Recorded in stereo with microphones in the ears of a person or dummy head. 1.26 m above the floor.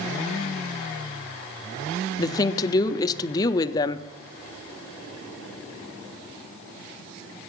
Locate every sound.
2.2 s a woman speaking: 20° left (ahead or behind), 0.6 m